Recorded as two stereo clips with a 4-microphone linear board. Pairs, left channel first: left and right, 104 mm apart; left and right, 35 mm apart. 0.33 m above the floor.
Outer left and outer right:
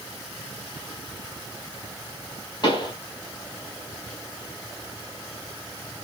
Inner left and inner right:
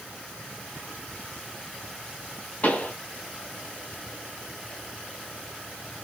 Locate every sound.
2.6 s a pop: 45° left (ahead or behind), 1.4 m